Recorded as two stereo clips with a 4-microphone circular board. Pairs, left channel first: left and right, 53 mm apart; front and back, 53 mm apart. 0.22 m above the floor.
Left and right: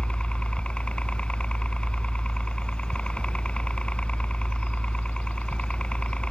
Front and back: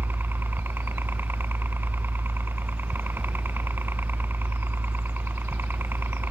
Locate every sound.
0.0 s a helicopter: 155° left